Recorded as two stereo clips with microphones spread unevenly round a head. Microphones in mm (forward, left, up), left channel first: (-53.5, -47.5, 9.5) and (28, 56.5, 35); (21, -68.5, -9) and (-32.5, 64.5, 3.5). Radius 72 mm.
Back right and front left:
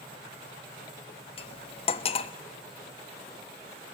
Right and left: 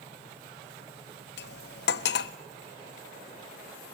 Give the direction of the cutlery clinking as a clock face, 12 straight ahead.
2 o'clock.